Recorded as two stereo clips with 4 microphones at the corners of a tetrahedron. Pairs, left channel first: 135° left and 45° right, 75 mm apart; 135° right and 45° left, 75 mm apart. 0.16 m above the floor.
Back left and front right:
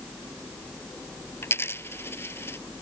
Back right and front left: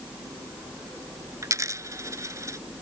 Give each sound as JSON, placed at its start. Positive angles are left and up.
{"t": 1.4, "sound": "a dropped coin", "azimuth_deg": 85}